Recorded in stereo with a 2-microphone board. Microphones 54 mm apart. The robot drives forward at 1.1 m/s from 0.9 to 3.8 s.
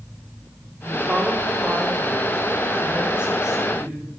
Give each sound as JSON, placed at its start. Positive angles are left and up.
{"t": 0.8, "sound": "a woman speaking", "side_deg": -30, "distance_m": 4.5}